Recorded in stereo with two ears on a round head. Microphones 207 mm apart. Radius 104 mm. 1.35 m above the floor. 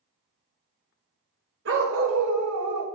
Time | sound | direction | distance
1.6 | a dog barking | 50° right (ahead or behind) | 2.5 m